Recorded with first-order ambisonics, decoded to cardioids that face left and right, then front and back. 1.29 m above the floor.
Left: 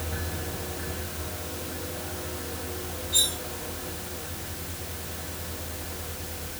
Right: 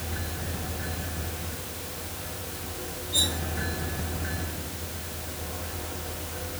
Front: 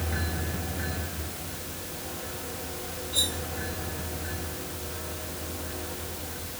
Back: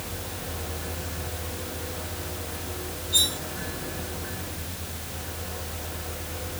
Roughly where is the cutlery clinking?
Behind left.